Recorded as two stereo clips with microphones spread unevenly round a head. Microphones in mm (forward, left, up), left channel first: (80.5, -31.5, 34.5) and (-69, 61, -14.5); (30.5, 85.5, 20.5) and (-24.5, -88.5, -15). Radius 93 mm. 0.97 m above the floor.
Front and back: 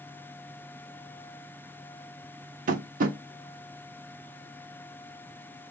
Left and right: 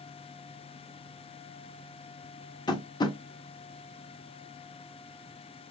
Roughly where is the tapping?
Left.